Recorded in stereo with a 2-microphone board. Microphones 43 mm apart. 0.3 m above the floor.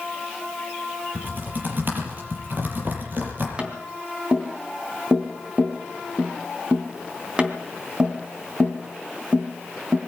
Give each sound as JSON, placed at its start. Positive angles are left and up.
{"t": 1.1, "sound": "typing on a keyboard", "side_deg": -50, "distance_m": 6.5}
{"t": 3.6, "sound": "tapping", "side_deg": -25, "distance_m": 3.0}